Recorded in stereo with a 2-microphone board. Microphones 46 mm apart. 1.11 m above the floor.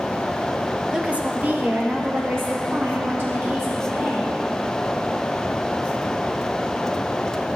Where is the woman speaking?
20° right (ahead or behind), 0.7 m; by 4.3 s 60° right (ahead or behind), 3 m.